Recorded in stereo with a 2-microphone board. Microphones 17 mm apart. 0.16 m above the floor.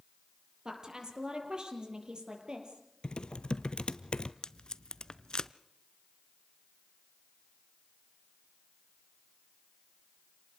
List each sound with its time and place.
0.7 s a woman speaking: 55° right (ahead or behind), 5 m; by 2.8 s 65° right (ahead or behind), 5 m
3.0 s typing on a keyboard: 80° left, 0.8 m
4.4 s tape being pulled: 55° left (ahead or behind), 0.5 m